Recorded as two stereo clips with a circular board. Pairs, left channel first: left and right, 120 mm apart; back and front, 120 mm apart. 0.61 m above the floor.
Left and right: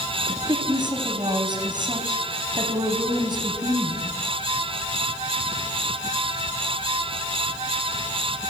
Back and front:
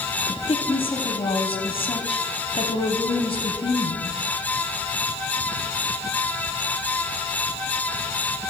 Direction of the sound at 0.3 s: 140° right.